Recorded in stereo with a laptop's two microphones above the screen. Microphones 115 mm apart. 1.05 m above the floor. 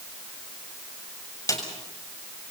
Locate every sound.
1.5 s a snare drum: 30° left (ahead or behind), 7 m